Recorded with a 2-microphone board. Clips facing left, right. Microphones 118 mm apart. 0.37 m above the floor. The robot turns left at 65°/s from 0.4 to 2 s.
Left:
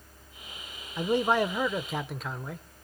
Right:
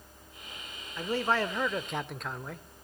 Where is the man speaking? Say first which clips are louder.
Left 4 dB; 20° left (ahead or behind), 0.8 m; by 2.7 s 5° left (ahead or behind), 0.8 m.